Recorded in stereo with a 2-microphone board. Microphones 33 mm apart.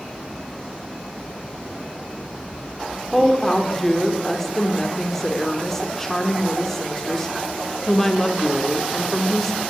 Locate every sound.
3.1 s a woman speaking: 10° left (ahead or behind), 1.9 m